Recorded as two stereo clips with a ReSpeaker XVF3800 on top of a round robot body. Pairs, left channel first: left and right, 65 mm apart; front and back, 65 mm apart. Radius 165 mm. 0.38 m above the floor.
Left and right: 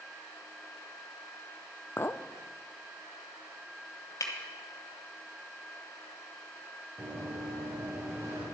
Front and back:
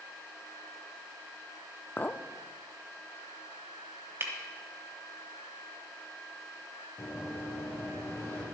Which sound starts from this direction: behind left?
Breaking glass, at 4.2 s.